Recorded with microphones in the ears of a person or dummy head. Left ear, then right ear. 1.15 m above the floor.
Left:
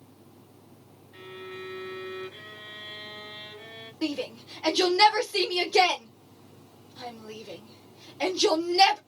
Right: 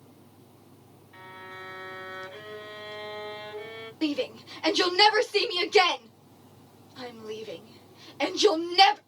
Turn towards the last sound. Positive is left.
turn(degrees=-25)  # may be behind; listen again after turning